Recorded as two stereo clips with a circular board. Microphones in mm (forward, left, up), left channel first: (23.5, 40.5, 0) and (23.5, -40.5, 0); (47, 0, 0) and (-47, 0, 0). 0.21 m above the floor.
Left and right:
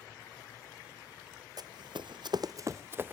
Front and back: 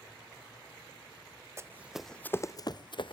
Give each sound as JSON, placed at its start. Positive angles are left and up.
{"t": 1.6, "sound": "running footsteps", "azimuth_deg": -120, "distance_m": 0.7}